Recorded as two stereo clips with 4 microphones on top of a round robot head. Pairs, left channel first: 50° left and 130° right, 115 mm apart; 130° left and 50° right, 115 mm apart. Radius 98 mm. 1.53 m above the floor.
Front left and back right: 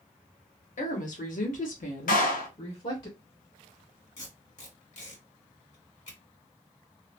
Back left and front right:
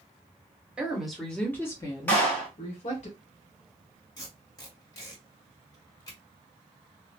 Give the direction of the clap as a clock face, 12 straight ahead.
10 o'clock.